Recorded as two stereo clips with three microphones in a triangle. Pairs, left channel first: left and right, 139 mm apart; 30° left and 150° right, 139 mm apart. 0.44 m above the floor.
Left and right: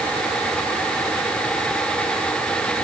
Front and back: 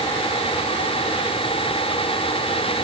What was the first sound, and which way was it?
Only background noise.